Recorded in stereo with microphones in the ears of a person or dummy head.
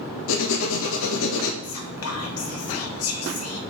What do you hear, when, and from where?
0.3 s writing: 70° left (ahead or behind), 1.5 m
1.6 s whispering: 75° left (ahead or behind), 2.0 m